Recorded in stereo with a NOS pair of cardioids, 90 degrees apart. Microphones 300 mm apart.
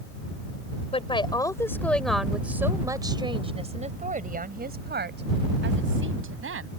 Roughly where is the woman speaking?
Ahead.